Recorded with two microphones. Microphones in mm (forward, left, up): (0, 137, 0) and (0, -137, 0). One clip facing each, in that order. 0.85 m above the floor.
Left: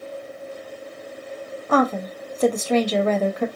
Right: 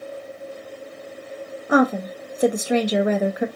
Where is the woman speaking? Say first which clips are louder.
Right 2 dB; 15° right (ahead or behind), 0.5 m.